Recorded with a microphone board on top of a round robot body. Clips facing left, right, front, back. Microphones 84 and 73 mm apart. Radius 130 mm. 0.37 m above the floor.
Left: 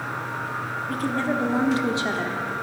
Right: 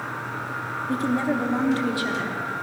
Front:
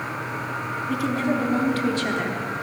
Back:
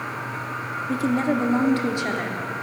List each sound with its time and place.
0.9 s a woman speaking: 140° right, 1.6 m; by 2.6 s 95° left, 1.7 m